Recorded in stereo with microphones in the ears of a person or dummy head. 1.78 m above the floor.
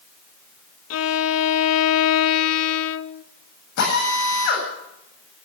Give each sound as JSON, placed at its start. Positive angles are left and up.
{"t": 0.9, "sound": "a violin", "side_deg": 80, "distance_m": 0.9}
{"t": 3.8, "sound": "a drill", "side_deg": 65, "distance_m": 8.5}